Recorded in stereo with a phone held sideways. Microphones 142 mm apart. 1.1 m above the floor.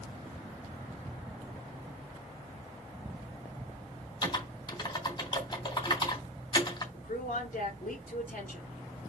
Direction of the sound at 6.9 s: 80° left.